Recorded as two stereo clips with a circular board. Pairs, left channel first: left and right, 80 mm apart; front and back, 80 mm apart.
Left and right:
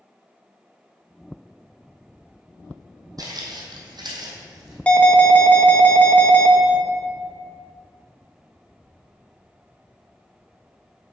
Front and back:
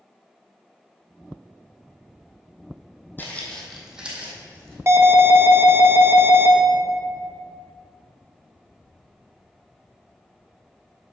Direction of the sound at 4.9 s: 155° left.